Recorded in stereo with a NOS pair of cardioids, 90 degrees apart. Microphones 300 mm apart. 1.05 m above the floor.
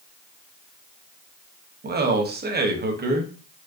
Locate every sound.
1.8 s a man speaking: 35° right, 1.0 m